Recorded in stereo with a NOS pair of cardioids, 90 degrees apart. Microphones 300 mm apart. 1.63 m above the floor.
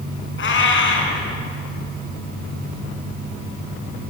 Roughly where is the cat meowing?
Ahead left.